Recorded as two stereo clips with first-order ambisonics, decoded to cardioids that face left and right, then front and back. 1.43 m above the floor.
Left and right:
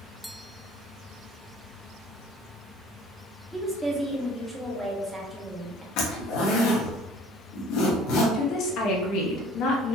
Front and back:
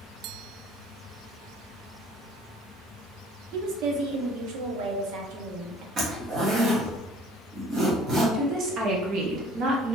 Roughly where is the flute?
I don't hear a flute.